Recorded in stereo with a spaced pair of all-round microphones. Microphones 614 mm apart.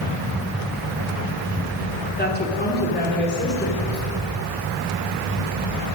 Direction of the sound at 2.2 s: 15° left (ahead or behind).